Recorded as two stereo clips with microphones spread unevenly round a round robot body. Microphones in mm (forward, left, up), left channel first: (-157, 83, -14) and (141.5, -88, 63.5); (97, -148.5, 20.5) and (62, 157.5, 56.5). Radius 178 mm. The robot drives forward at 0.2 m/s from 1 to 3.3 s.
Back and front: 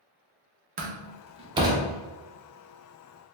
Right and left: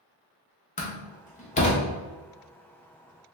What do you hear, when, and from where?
0.8 s a door slam: 100° right, 0.6 m; by 1.9 s 125° right, 0.7 m